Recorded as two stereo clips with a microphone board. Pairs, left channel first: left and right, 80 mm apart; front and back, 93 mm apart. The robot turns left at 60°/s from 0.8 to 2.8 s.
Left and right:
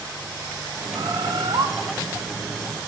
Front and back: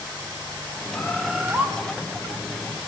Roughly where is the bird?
Right.